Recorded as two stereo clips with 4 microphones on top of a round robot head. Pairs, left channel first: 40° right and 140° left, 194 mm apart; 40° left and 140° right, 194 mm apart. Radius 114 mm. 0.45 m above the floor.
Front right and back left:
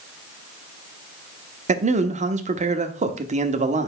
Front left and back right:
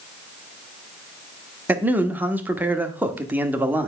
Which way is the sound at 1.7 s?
145° left.